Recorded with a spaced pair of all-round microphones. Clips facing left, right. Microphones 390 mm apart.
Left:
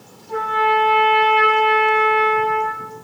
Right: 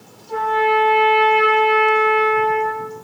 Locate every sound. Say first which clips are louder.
0.3 s a trumpet: right 3 dB; 30° left (ahead or behind), 6 m